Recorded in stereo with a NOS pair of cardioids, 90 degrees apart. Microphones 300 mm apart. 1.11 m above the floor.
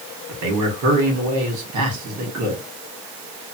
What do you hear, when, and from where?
0.3 s a man speaking: 70° right, 1.5 m